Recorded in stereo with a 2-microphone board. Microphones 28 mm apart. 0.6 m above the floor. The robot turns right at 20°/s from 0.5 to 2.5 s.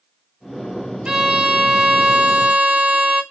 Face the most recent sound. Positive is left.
turn(degrees=-70)  # may be behind; listen again after turning